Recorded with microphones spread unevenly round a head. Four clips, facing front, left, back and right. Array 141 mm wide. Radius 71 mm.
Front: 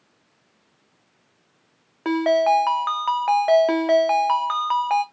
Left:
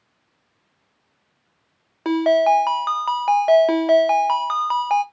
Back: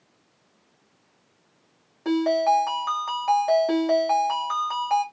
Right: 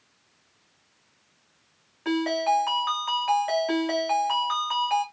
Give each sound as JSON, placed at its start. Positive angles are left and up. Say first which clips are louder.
{"t": 2.0, "sound": "a ringtone", "louder": "left 8 dB, front 2 dB", "azimuth_deg": 50, "distance_m": 0.6}